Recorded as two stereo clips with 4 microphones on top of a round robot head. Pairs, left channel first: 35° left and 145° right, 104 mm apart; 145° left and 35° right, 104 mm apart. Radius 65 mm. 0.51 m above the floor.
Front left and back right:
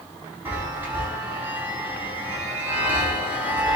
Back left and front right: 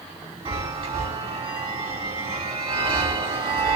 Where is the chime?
75° right, 3.5 m.